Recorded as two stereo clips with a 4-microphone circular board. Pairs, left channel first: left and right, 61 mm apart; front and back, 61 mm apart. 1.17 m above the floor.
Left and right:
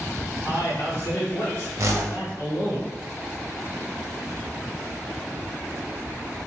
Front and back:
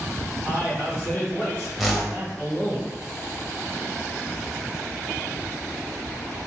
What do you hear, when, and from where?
0.4 s a man speaking: 40° left, 1.5 m
1.8 s a whoosh: 90° right, 0.6 m